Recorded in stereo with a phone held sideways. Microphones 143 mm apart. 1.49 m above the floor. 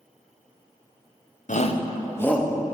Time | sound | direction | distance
1.5 | a shout | 60° left (ahead or behind) | 0.9 m